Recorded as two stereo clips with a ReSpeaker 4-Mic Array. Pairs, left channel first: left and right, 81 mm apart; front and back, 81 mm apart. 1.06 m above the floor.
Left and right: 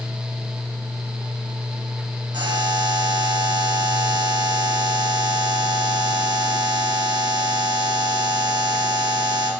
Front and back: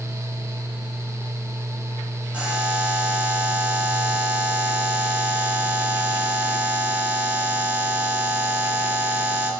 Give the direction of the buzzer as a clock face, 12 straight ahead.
4 o'clock.